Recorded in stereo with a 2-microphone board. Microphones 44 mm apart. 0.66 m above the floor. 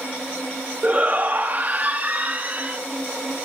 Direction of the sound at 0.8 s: 35° right (ahead or behind).